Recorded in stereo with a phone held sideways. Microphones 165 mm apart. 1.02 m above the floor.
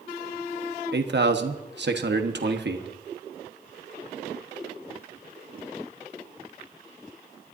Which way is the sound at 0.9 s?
80° right.